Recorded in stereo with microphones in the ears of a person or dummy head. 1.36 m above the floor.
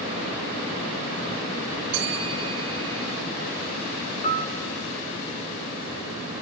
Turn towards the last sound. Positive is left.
turn(degrees=40)  # may be behind; listen again after turning